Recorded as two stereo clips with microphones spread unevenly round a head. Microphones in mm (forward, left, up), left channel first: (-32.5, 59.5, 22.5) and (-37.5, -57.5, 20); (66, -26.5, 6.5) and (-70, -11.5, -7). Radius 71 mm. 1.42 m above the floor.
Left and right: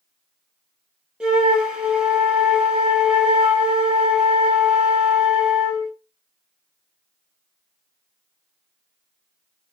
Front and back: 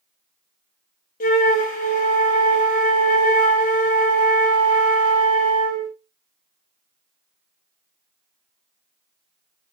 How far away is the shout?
No shout in this recording.